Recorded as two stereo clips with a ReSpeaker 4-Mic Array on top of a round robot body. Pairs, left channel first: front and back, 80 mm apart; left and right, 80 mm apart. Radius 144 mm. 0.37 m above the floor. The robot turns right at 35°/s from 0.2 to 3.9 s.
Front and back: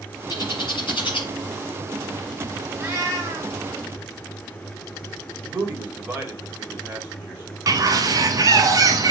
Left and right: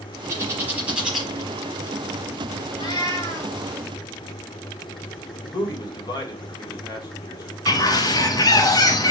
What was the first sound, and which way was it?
A bird, 35° right.